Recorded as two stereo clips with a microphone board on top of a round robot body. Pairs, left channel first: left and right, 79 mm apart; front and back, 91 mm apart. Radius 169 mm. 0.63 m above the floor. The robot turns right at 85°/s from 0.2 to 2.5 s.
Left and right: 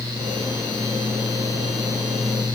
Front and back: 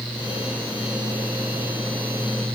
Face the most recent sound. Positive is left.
No sound to turn to.